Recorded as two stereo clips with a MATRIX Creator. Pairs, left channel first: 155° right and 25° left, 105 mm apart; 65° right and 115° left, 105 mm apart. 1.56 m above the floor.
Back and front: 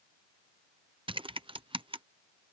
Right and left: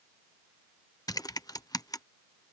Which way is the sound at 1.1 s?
15° right.